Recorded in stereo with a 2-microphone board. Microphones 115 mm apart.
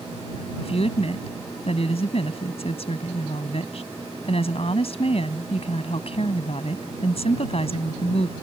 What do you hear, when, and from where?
0.6 s a woman speaking: 60° left (ahead or behind)